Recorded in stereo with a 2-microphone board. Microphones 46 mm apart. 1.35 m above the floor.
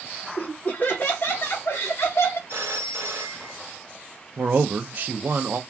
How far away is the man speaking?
About 0.7 m.